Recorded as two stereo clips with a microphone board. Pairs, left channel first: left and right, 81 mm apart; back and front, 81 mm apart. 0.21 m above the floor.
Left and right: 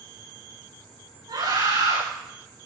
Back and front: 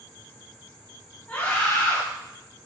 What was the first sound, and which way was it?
A scream, 110° right.